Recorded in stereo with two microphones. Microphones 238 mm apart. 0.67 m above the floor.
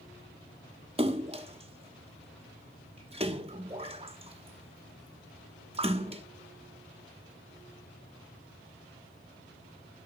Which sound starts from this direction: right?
A splash, at 1.0 s.